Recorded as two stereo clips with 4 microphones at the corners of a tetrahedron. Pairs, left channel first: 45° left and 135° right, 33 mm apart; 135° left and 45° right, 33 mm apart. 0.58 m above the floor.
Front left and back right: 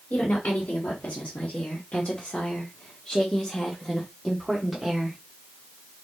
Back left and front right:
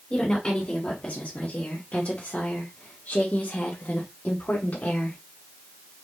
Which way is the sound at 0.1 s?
70° left.